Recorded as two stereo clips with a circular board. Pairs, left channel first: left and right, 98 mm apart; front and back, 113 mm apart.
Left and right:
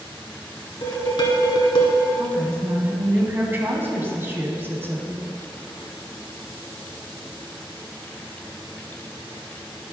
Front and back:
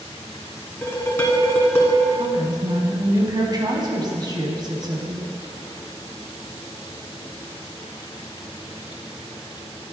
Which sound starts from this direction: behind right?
A woman speaking, at 2.2 s.